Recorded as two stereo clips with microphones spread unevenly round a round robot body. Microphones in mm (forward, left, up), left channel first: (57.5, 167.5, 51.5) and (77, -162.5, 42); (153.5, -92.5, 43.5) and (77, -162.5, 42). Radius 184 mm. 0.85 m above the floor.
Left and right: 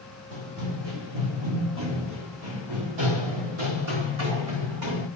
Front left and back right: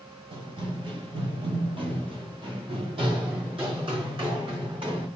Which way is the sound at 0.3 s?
125° right.